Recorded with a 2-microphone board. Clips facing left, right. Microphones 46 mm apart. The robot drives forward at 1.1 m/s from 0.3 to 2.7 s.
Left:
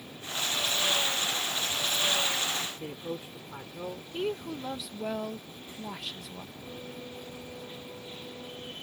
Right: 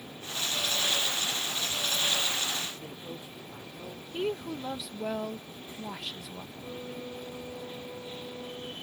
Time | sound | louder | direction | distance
2.8 | a man speaking | left 4 dB | 40° left (ahead or behind) | ?
4.1 | a woman speaking | right 1 dB | 5° right (ahead or behind) | ?
6.5 | a flute | right 5 dB | 15° right (ahead or behind) | ?